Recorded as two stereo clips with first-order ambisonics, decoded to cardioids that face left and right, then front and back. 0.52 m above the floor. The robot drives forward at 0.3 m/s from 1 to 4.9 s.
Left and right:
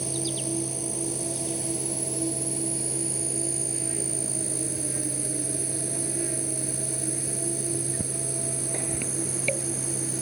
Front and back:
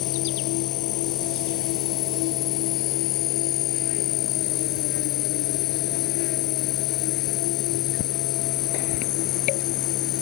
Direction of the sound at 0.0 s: 10° right.